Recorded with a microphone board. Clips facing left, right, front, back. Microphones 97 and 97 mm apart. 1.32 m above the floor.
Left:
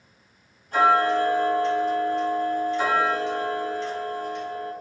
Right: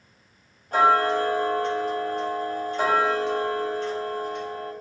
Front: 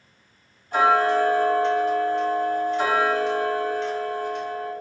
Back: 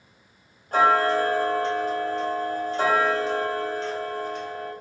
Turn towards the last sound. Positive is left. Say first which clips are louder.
# even, front 1 dB
turn(degrees=-130)